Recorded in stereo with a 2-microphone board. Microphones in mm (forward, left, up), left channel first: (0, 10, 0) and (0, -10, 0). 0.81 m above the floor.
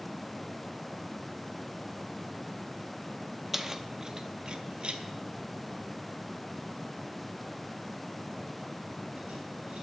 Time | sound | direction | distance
3.5 | keys jangling | 15° right (ahead or behind) | 0.7 m